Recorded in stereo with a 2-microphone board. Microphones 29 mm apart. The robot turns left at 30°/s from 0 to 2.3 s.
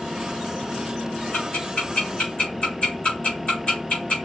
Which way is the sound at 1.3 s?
70° left (ahead or behind).